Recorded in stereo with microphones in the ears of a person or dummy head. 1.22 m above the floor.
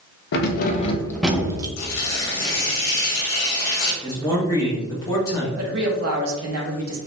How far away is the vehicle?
No vehicle in this recording.